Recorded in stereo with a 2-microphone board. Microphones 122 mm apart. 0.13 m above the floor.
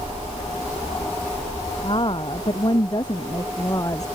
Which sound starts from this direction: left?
A woman speaking, at 1.8 s.